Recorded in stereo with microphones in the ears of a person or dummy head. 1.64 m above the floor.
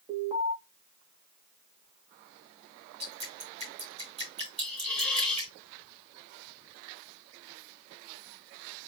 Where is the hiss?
10° left (ahead or behind), 1.6 m.